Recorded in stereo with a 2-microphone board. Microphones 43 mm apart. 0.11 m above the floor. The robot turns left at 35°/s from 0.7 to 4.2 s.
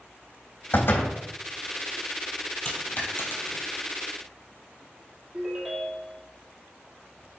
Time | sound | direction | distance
0.7 | a door slam | 50° left (ahead or behind) | 3.5 m
2.6 | a dropped coin | 30° left (ahead or behind) | 1.7 m
5.3 | a ringtone | 5° right (ahead or behind) | 2.5 m